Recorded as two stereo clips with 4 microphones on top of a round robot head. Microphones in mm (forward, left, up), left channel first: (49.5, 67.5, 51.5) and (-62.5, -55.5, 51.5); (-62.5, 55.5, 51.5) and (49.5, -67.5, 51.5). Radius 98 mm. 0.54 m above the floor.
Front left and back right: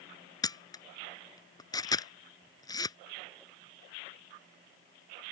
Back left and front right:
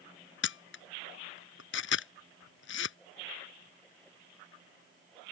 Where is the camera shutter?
115° left.